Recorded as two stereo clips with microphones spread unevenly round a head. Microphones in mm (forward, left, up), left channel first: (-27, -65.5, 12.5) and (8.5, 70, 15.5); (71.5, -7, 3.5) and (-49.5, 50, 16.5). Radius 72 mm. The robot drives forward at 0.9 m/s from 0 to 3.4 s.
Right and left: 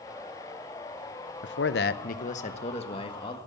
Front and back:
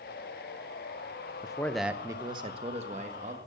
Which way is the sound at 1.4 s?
90° right.